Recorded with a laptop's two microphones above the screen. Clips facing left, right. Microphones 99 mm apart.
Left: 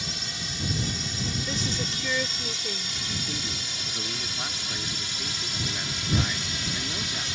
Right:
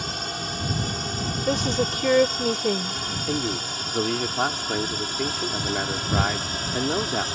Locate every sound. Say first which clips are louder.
0.0 s a drone: right 7 dB; 50° right (ahead or behind); by 7.3 s 40° right (ahead or behind)
1.5 s a woman speaking: right 8 dB; 60° right (ahead or behind)
3.3 s a man speaking: right 9 dB; 65° right (ahead or behind)